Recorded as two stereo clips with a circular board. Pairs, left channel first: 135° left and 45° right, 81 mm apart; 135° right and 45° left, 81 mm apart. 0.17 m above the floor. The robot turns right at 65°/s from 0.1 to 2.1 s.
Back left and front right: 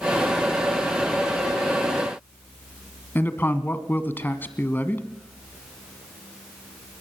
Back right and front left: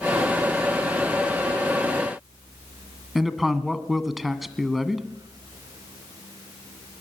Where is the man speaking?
130° left, 1.5 m.